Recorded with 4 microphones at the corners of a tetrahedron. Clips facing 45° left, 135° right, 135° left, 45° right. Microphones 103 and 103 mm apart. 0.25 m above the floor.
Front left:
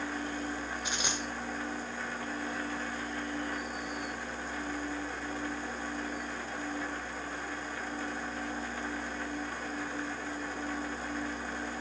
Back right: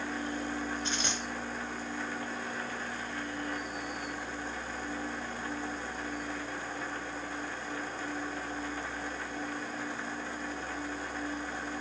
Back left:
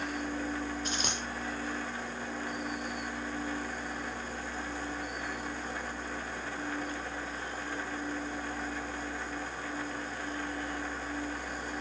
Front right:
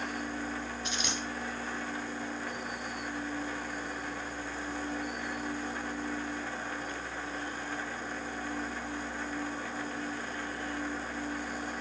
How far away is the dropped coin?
About 0.6 m.